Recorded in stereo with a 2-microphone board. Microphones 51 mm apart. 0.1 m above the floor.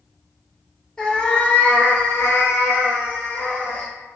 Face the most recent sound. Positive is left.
turn(degrees=45)  # may be behind; listen again after turning